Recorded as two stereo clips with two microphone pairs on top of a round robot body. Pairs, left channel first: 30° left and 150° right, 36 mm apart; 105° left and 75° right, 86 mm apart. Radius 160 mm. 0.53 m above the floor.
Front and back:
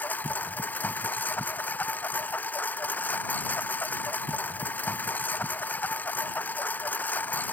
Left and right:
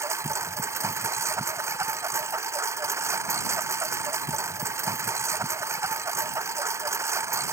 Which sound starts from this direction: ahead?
A lawn mower, at 0.0 s.